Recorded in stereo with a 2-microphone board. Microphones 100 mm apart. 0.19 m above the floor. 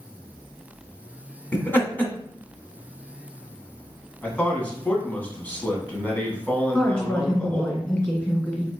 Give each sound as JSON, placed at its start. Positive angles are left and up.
{"t": 1.5, "sound": "laughter", "side_deg": 20, "distance_m": 1.2}
{"t": 4.2, "sound": "a man speaking", "side_deg": 15, "distance_m": 1.3}
{"t": 6.7, "sound": "a woman speaking", "side_deg": 10, "distance_m": 1.8}